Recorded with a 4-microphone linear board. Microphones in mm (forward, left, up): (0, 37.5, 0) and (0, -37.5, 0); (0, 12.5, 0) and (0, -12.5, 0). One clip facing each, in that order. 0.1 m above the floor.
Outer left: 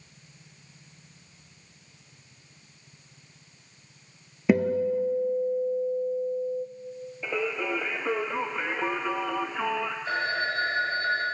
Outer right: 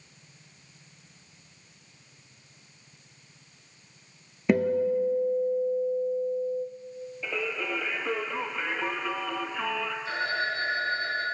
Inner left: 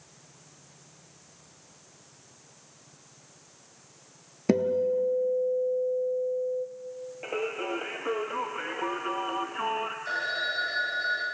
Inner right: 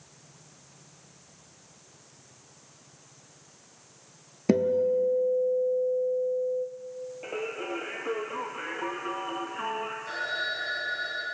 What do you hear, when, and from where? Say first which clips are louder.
4.5 s a guitar: even, inner right 1 dB; 5° left (ahead or behind), 0.8 m
7.2 s singing: outer left 3 dB, inner left 3 dB; 15° left (ahead or behind), 0.7 m
10.1 s a phone ringing: outer left 1 dB, inner left 1 dB; 40° left (ahead or behind), 4 m